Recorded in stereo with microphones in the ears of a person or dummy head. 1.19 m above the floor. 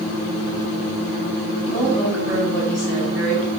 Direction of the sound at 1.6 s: 10° left (ahead or behind).